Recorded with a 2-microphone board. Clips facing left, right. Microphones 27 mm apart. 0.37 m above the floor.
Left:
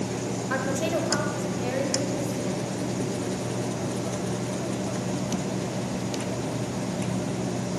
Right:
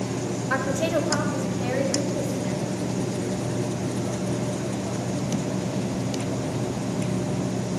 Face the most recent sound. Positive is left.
turn(degrees=-5)  # may be behind; listen again after turning